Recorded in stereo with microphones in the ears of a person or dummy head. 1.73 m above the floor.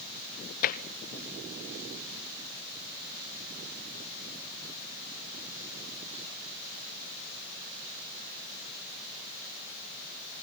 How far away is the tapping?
About 1.3 m.